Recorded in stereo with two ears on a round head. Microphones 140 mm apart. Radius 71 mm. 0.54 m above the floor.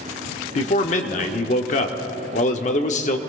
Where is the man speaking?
50° left (ahead or behind), 1.0 m.